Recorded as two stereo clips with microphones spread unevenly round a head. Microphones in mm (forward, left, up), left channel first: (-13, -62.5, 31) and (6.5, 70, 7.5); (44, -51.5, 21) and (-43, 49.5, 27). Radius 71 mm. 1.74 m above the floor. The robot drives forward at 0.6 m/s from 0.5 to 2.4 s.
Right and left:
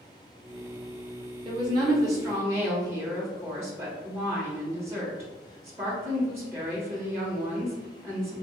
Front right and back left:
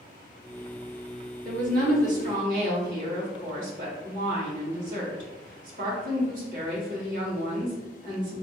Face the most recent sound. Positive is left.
turn(degrees=155)